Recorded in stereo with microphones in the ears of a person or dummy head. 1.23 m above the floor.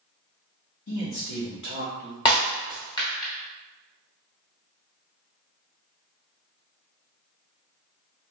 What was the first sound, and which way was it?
A man speaking, 70° left (ahead or behind).